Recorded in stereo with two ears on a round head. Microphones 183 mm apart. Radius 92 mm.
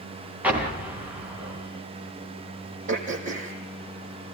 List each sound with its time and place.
0.4 s an explosion: 10° right (ahead or behind), 4.5 m
2.9 s throat clearing: 40° right (ahead or behind), 5 m